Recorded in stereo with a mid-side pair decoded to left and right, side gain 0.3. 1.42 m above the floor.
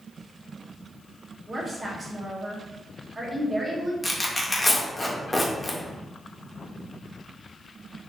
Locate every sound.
1.5 s a woman speaking: 40° right, 1.1 m
4.0 s tearing paper: 25° left, 0.8 m